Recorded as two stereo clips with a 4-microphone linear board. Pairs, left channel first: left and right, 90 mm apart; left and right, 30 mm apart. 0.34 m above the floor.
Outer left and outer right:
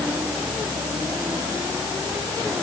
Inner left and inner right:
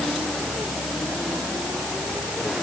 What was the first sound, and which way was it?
Only background noise.